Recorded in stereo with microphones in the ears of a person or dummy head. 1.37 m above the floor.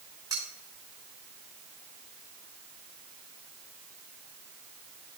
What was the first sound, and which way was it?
Cutlery clinking, 25° right (ahead or behind).